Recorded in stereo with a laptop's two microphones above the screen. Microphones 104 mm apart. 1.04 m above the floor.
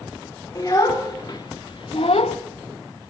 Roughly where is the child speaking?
Left.